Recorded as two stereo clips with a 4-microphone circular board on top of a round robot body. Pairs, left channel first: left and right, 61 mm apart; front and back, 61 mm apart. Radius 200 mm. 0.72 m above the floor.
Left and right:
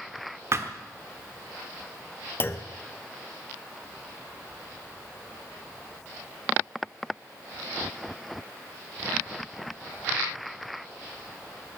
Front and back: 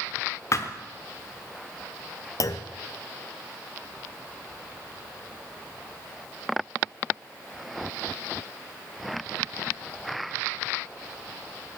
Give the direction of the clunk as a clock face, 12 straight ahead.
11 o'clock.